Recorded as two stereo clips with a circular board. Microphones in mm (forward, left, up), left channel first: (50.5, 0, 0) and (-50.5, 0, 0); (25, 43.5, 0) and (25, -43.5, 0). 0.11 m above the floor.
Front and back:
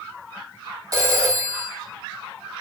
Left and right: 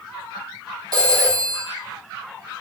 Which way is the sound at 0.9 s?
130° right.